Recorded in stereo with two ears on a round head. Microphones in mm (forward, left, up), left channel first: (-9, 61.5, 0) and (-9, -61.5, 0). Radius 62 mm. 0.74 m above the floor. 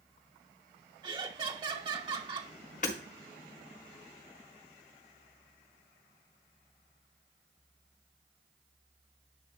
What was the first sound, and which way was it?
Laughter, 35° right (ahead or behind).